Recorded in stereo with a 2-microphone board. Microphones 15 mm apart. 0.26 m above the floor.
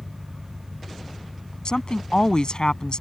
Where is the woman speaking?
55° left (ahead or behind).